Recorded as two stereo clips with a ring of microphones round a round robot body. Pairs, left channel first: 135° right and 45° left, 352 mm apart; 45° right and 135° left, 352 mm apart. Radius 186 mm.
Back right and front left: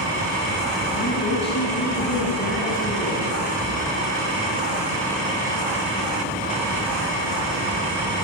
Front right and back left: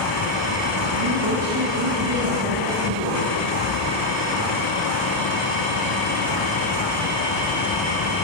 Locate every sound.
0.9 s a woman speaking: 160° left, 7 m; by 3.3 s 170° left, 9 m